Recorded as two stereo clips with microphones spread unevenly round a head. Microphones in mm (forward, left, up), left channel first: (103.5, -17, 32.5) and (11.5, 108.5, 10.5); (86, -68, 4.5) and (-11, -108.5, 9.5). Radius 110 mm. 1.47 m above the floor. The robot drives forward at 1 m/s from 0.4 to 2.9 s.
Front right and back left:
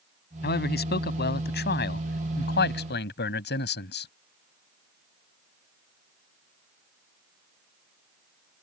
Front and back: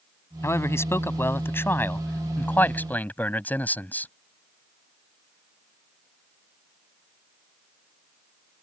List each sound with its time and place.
0.4 s a man speaking: 40° right; by 4.1 s 50° right